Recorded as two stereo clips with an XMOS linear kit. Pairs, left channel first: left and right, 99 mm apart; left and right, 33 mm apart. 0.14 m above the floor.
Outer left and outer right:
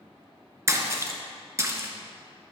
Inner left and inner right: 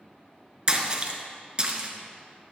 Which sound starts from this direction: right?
A splash, at 0.7 s.